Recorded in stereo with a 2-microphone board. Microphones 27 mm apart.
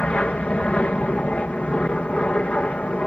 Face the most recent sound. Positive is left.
turn(degrees=50)  # may be behind; listen again after turning